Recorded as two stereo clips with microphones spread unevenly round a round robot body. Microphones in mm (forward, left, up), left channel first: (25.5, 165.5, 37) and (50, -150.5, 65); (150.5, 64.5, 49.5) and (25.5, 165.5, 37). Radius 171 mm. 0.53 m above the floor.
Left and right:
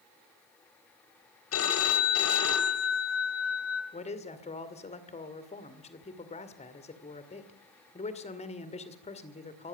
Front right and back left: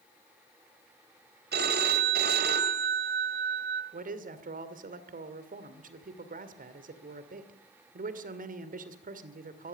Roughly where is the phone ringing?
Behind left.